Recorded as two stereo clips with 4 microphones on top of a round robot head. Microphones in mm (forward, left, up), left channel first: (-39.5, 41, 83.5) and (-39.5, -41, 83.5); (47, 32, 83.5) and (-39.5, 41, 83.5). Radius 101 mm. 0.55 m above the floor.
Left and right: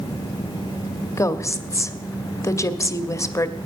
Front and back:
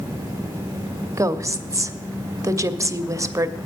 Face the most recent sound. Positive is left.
turn(degrees=130)